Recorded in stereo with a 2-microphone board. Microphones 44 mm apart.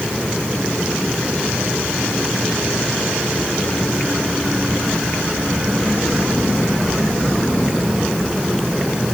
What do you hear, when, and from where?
Only background noise.